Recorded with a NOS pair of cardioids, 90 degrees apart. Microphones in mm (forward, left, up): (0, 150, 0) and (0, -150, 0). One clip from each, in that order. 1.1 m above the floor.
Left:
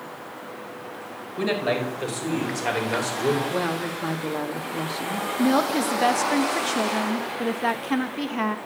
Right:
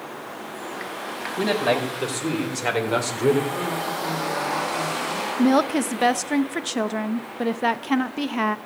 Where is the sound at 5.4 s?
20° right, 0.8 m.